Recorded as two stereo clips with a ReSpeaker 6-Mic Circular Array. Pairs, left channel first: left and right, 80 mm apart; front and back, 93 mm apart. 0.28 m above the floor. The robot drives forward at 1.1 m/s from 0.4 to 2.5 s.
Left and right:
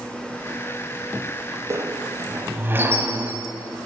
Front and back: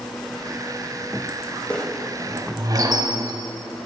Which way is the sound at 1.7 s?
70° right.